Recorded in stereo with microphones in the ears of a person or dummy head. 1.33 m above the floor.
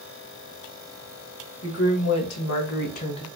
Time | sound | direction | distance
1.6 | a woman speaking | 85° left | 1.8 m